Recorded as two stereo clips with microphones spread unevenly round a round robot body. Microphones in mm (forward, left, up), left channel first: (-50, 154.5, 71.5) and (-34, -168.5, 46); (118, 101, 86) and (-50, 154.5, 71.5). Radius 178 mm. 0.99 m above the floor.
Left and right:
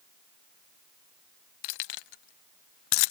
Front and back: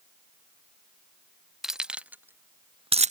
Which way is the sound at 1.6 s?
75° left.